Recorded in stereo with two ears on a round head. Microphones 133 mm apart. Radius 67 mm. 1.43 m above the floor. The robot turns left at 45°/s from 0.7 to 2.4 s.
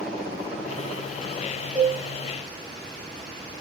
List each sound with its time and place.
1.8 s a cowbell: 5° right (ahead or behind), 1.1 m; by 2.0 s 15° right (ahead or behind), 1.1 m